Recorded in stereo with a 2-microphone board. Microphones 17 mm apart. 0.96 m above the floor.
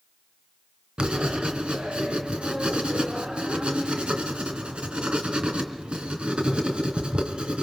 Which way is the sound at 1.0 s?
80° right.